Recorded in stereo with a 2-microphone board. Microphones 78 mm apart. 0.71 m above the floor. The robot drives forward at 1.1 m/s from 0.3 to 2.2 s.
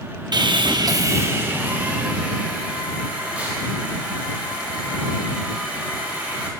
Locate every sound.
0.3 s sawing: 60° right (ahead or behind), 0.6 m; by 6.5 s 15° right (ahead or behind), 1.9 m